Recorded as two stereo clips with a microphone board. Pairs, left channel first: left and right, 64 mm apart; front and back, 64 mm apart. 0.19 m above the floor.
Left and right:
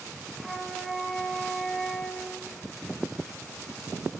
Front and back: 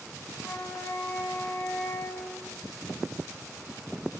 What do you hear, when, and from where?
0.4 s a flute: straight ahead, 1.0 m